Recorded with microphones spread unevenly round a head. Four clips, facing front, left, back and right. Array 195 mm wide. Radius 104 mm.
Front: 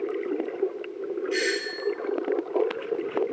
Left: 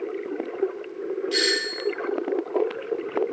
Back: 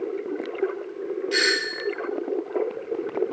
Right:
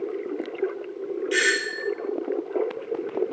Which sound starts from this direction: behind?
A doorbell, at 1.3 s.